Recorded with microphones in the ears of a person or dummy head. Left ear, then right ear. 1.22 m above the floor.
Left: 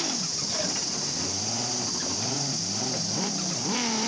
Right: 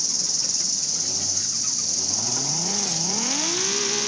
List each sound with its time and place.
0.0 s an insect: 55° right (ahead or behind), 1.4 m